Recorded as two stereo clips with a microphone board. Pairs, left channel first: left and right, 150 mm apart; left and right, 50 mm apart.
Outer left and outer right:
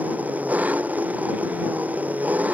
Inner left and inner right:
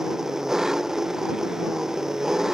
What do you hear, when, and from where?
0.0 s an engine running: 10° right (ahead or behind)